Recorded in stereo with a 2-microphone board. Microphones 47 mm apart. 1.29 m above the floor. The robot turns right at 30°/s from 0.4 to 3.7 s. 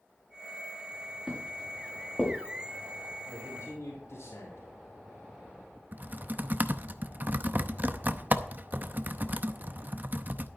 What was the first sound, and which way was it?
Footsteps, 5° right (ahead or behind).